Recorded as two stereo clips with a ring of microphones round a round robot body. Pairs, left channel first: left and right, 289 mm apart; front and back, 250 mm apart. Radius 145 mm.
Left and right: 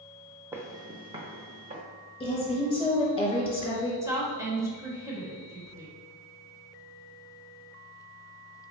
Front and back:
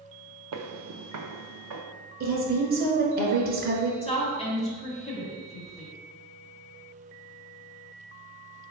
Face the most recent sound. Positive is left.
turn(degrees=-25)